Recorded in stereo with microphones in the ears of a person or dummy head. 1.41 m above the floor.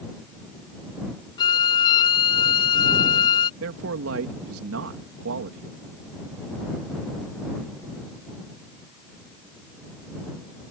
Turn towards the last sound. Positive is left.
turn(degrees=-90)